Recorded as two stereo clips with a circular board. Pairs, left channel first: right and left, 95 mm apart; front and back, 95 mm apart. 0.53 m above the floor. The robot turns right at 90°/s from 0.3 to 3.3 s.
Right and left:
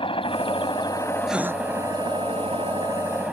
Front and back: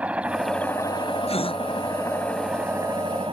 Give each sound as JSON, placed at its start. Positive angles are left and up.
{"t": 0.0, "sound": "a helicopter", "azimuth_deg": -105}
{"t": 1.3, "sound": "a gasp", "azimuth_deg": 5}